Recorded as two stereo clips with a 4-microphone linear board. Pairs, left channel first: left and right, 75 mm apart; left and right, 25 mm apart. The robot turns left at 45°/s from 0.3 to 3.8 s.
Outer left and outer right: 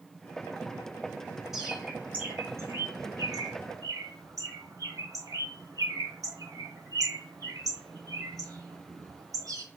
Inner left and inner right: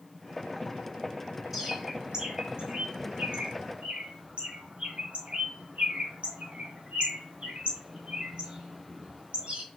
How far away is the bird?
About 1.5 m.